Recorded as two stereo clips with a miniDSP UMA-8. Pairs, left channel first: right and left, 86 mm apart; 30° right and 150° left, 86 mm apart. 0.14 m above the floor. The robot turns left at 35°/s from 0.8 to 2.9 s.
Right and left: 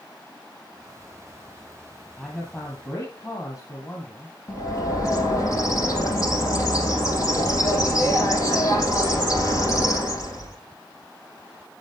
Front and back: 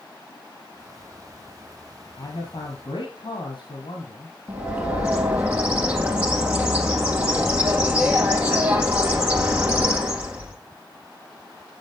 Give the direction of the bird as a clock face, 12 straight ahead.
5 o'clock.